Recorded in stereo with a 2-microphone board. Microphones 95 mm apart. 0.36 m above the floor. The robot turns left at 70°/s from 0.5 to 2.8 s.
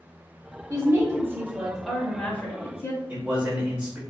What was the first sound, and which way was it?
A woman speaking, 95° right.